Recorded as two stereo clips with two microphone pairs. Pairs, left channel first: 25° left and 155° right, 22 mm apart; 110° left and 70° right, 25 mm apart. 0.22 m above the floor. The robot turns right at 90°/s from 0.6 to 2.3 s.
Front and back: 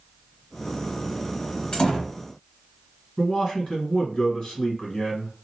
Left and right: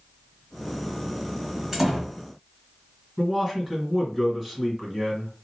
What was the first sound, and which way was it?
A door slam, 10° right.